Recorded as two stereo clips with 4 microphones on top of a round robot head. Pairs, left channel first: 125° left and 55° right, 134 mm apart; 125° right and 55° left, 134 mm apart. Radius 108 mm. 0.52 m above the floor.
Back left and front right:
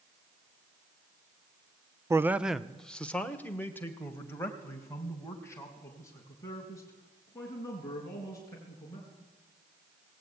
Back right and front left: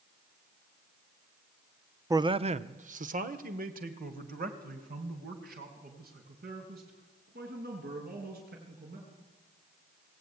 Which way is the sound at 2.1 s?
Straight ahead.